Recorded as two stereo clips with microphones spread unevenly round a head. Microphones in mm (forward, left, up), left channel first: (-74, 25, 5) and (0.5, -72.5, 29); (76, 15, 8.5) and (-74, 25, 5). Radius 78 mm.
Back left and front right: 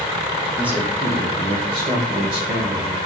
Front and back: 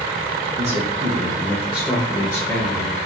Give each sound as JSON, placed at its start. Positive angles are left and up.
{"t": 0.6, "sound": "a man speaking", "azimuth_deg": -140, "distance_m": 0.9}